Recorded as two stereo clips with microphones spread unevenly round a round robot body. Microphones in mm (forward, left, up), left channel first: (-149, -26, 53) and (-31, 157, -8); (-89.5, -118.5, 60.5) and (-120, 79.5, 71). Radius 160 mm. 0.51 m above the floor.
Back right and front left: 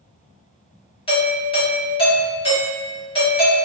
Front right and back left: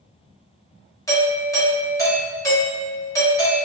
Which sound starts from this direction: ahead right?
A doorbell, at 1.1 s.